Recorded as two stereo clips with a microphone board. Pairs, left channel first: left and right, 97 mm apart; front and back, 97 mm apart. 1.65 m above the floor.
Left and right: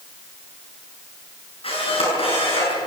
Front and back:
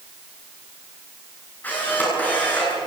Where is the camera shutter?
75° left, 9 m.